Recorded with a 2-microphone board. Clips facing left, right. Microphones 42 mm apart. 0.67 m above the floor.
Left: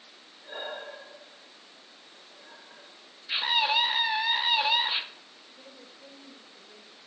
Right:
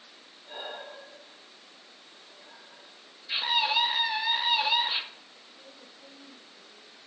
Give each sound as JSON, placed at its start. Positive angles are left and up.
{"t": 0.4, "sound": "breathing", "side_deg": 75, "distance_m": 2.5}
{"t": 3.3, "sound": "a scream", "side_deg": 15, "distance_m": 0.7}
{"t": 5.4, "sound": "a woman speaking", "side_deg": 65, "distance_m": 2.5}